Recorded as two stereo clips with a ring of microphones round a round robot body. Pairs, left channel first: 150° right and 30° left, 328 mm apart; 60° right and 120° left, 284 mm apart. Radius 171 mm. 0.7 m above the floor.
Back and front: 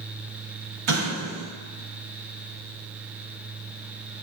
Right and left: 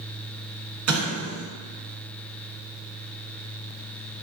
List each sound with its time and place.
0.9 s an explosion: 80° left, 1.4 m